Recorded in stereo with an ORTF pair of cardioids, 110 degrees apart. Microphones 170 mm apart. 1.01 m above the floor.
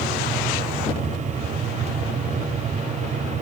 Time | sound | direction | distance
0.0 | a fan | 45° right | 3 m